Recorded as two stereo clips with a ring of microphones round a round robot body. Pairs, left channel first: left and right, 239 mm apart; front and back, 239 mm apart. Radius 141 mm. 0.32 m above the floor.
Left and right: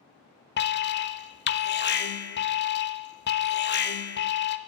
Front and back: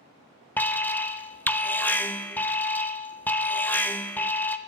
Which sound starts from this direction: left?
An alarm, at 0.6 s.